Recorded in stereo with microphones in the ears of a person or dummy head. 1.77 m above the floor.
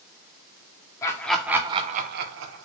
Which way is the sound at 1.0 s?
20° left (ahead or behind).